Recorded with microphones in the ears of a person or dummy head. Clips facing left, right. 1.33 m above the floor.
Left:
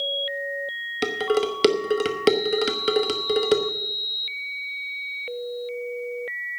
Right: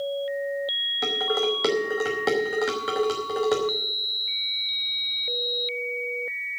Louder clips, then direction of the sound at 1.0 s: Left 3 dB; 40° left (ahead or behind).